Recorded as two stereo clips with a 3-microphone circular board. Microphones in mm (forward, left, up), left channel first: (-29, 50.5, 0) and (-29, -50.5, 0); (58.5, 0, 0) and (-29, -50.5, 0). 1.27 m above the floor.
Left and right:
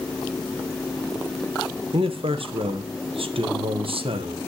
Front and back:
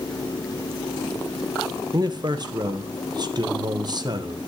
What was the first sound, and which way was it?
A man speaking, 110° right.